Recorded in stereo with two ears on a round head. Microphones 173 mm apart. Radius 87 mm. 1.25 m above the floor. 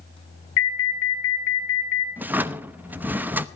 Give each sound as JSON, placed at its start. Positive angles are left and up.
{"t": 0.6, "sound": "an alarm", "side_deg": 70, "distance_m": 3.0}
{"t": 2.2, "sound": "a drawer", "side_deg": -10, "distance_m": 0.8}